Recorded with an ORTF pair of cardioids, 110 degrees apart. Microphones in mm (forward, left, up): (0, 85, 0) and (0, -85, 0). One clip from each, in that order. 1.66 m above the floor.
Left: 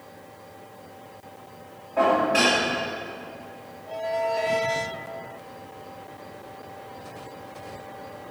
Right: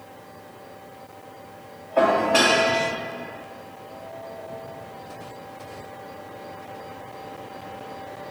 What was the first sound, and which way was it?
Dishes clattering, 30° right.